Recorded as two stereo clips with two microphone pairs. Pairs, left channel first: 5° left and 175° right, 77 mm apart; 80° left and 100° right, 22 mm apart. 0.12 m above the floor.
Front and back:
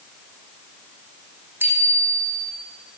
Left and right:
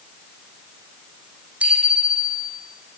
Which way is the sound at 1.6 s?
115° right.